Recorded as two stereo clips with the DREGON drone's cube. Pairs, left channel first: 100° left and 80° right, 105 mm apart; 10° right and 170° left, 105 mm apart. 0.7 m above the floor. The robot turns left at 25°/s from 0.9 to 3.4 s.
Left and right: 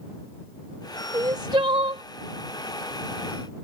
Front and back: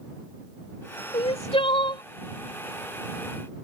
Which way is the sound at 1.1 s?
25° right.